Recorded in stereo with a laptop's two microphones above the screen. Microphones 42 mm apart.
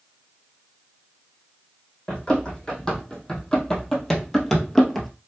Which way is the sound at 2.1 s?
20° left (ahead or behind).